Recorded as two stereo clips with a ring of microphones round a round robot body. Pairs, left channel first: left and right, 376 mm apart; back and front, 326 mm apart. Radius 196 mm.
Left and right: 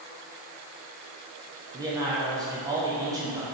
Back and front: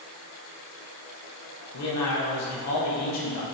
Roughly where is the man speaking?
Behind.